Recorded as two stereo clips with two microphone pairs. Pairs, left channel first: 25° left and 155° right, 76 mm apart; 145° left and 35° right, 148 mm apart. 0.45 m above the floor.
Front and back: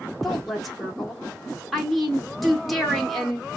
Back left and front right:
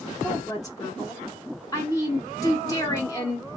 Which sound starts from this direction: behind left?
A woman speaking, at 0.2 s.